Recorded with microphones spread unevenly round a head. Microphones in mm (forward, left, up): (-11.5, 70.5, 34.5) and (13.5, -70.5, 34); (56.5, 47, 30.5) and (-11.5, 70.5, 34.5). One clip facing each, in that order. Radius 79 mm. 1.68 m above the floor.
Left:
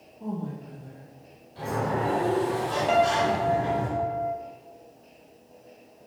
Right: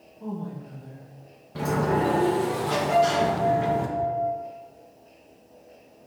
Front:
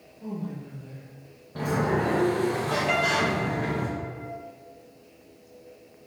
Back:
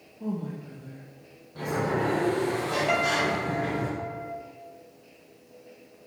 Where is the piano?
80° left, 2 m.